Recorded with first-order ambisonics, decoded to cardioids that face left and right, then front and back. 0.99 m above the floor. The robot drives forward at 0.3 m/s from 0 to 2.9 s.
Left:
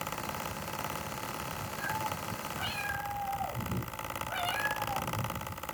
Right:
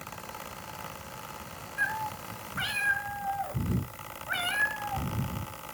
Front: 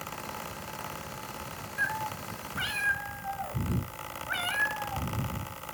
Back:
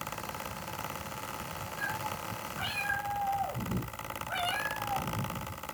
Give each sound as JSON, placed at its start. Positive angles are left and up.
{"t": 1.8, "sound": "a cat meowing", "azimuth_deg": -50, "distance_m": 4.5}